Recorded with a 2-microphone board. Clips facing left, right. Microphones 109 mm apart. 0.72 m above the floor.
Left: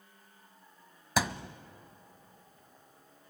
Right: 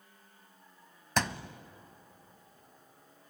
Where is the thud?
5° left (ahead or behind), 0.6 m.